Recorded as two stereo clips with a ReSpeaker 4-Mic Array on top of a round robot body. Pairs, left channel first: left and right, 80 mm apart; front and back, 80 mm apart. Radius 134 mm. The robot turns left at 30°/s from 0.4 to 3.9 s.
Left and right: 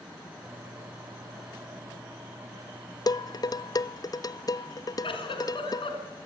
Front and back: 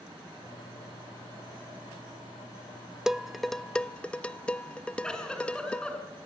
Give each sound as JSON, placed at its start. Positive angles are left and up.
{"t": 3.1, "sound": "dishes clattering", "azimuth_deg": 100, "distance_m": 0.7}
{"t": 5.0, "sound": "a giggle", "azimuth_deg": 80, "distance_m": 5.0}